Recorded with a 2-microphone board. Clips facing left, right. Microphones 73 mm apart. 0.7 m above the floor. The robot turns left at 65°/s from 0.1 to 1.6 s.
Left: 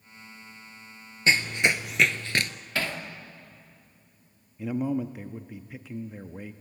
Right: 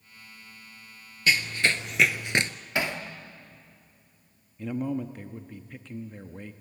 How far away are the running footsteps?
About 0.8 m.